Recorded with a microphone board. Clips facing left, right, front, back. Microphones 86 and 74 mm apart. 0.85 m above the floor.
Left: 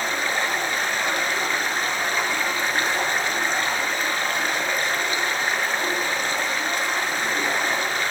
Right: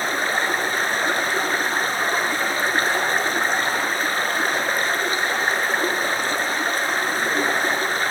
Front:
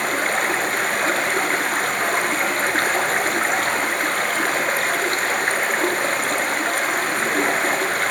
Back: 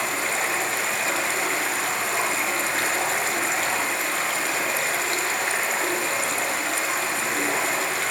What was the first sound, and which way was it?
Running water, 35° right.